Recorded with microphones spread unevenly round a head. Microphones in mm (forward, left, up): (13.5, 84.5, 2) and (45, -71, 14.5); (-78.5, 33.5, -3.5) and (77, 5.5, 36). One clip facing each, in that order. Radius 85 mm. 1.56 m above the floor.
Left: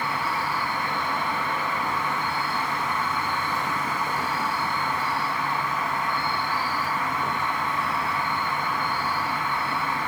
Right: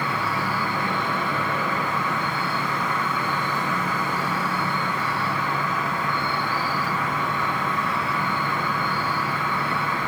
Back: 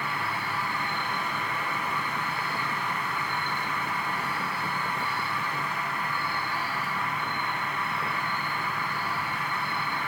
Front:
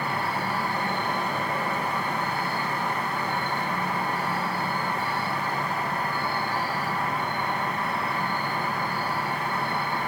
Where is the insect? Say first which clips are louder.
Right 2 dB, front 5 dB; 65° right, 1.2 m.